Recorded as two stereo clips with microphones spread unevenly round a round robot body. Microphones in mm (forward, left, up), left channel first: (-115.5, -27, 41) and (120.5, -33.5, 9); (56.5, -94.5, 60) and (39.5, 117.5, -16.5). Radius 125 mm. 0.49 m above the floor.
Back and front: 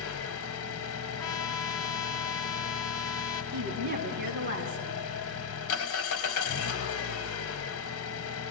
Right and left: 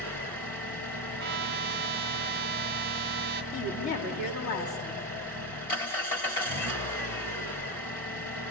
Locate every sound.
0.0 s an engine running: 150° right, 1.6 m
1.2 s a trumpet: 100° left, 1.2 m
3.5 s a woman speaking: 55° right, 4 m